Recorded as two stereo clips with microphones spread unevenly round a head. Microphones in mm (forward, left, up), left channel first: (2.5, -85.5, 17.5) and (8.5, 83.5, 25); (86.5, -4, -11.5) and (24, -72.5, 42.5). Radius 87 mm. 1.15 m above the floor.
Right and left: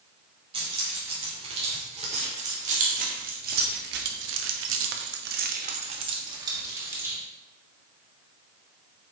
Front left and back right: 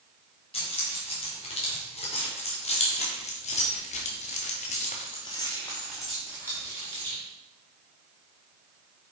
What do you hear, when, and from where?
0.5 s keys jangling: 30° left, 3 m; by 7.2 s 165° left, 1.8 m